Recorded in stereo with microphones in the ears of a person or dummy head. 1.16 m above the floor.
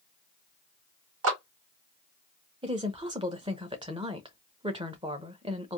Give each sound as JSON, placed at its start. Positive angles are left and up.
{"t": 1.2, "sound": "a clap", "side_deg": -75, "distance_m": 2.0}
{"t": 2.6, "sound": "a woman speaking", "side_deg": -20, "distance_m": 0.8}